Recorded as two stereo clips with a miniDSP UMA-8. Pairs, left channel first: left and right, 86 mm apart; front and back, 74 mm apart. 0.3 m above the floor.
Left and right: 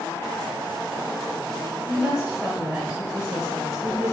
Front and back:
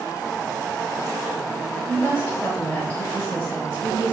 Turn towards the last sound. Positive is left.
turn(degrees=-30)